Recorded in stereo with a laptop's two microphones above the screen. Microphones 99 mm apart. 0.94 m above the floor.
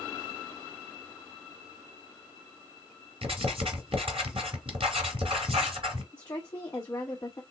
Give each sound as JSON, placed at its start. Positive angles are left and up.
{"t": 3.2, "sound": "writing", "side_deg": -65, "distance_m": 2.5}
{"t": 6.1, "sound": "a woman speaking", "side_deg": 30, "distance_m": 1.0}